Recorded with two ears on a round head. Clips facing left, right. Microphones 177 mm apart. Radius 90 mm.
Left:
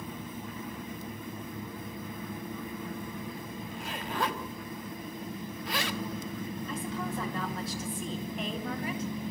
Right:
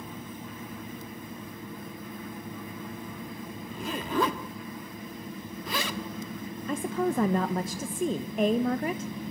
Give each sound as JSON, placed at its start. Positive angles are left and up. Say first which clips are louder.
{"t": 3.7, "sound": "a zipper", "louder": "right 8 dB", "side_deg": -75, "distance_m": 1.6}
{"t": 6.7, "sound": "a woman speaking", "louder": "right 10 dB", "side_deg": -40, "distance_m": 1.1}